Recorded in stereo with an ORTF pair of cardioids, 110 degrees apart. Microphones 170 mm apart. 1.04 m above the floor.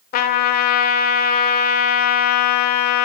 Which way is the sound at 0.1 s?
65° left.